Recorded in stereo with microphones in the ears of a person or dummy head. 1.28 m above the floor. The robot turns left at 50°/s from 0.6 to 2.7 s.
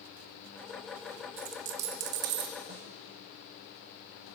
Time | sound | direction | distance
1.4 | a dropped coin | 60° right | 1.1 m
2.7 | a snare drum | 35° right (ahead or behind) | 1.4 m